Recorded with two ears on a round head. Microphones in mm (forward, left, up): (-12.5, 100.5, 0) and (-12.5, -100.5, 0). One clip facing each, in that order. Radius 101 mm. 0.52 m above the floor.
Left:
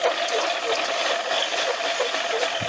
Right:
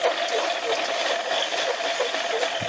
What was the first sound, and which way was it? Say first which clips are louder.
A lawn mower: even; centre (ahead or behind).